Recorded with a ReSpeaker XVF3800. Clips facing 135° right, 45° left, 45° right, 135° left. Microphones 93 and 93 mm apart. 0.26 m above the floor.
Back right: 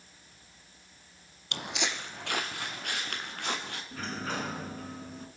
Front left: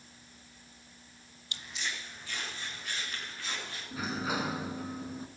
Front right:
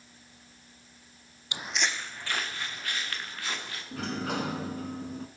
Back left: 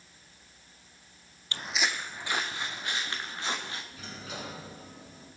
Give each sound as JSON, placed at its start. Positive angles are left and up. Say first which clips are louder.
{"t": 1.5, "sound": "footsteps", "louder": "back right 6 dB, even", "azimuth_deg": -120, "distance_m": 0.5}
{"t": 3.9, "sound": "a sliding door", "louder": "front left 2 dB, front right 10 dB", "azimuth_deg": -35, "distance_m": 1.1}